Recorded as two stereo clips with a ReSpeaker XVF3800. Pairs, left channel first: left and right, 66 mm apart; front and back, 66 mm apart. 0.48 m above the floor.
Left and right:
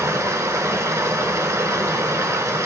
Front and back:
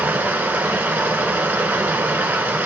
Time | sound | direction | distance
0.0 | running water | 115° right | 0.7 m